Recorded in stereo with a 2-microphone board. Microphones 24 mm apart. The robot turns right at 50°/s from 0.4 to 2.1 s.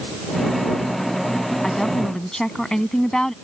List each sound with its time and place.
1.6 s a woman speaking: 20° left (ahead or behind); by 3.3 s 25° left (ahead or behind)